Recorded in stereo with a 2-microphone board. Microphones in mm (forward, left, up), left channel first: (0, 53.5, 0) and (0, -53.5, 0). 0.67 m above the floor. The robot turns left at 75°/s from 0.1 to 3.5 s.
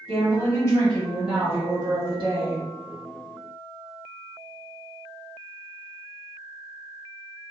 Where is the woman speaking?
75° left, 1.8 m; by 2.7 s 115° right, 1.8 m.